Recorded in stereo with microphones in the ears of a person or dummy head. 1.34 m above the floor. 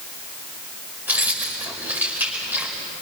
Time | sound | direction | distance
1.1 | keys jangling | 5° right (ahead or behind) | 5 m